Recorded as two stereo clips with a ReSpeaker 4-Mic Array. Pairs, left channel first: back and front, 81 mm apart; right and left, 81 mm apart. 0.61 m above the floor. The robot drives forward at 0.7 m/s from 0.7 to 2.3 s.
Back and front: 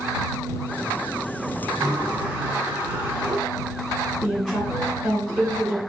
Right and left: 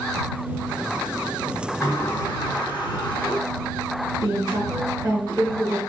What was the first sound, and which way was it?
A sliding door, 45° right.